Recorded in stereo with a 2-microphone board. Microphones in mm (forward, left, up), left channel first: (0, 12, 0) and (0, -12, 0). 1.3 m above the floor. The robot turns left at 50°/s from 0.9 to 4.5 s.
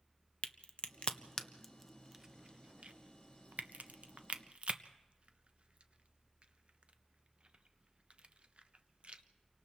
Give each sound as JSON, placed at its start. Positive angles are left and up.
{"t": 0.4, "sound": "a crack", "side_deg": 50, "distance_m": 0.9}